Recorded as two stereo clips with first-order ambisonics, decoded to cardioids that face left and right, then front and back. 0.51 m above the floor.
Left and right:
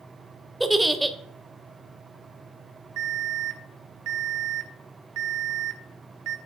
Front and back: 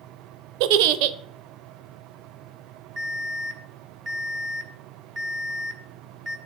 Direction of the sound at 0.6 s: 175° right.